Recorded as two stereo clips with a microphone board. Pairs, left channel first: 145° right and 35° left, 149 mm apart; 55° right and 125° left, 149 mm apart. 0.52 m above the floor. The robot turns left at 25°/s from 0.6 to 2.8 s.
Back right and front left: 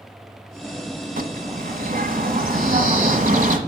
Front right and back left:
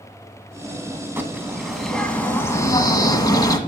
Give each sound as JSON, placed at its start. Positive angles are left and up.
{"t": 1.2, "sound": "a bird", "azimuth_deg": 50, "distance_m": 1.2}